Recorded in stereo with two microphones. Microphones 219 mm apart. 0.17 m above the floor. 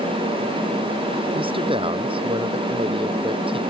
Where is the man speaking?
25° right (ahead or behind).